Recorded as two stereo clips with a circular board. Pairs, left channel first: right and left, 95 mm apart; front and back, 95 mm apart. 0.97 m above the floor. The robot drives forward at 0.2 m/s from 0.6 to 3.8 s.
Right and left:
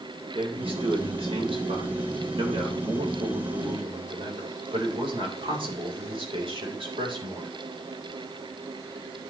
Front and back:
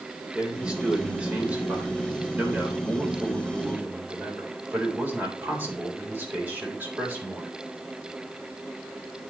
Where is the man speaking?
100° left, 3.5 m; by 7.5 s 110° left, 3.5 m.